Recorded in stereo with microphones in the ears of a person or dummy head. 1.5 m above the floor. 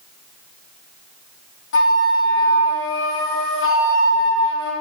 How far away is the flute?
About 1.0 m.